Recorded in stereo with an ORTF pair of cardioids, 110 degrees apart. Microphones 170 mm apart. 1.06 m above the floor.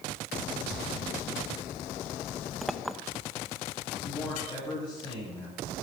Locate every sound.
2.6 s a clink: straight ahead, 0.5 m
4.0 s a man speaking: 25° left, 8.5 m